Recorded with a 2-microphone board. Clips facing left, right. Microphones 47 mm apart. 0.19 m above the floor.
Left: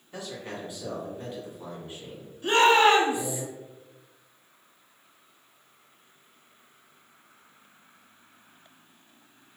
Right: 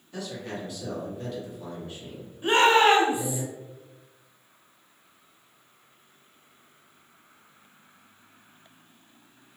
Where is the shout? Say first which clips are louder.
Even; 20° right (ahead or behind), 1.0 m.